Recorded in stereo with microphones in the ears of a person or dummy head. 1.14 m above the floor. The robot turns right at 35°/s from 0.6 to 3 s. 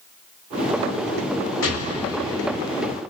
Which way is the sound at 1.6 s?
70° left.